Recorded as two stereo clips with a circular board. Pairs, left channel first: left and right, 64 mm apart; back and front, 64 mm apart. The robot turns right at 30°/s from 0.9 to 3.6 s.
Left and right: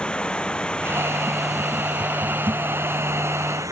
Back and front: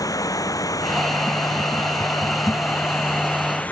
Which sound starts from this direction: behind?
Running water, at 0.0 s.